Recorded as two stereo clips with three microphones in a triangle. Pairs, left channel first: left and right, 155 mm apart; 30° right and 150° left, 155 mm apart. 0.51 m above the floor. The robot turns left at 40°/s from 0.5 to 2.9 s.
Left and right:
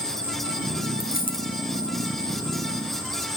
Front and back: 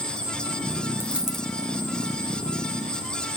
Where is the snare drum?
No snare drum in this recording.